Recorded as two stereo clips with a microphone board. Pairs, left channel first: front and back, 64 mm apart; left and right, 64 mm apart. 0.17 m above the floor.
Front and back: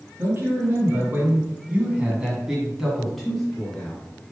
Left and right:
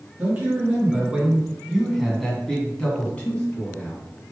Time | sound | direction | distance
0.2 | a man speaking | 145° right | 2 m